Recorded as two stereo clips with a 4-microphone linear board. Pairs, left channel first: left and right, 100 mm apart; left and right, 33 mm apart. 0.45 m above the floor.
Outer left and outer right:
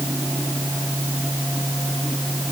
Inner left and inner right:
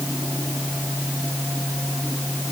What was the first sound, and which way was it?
Only background noise.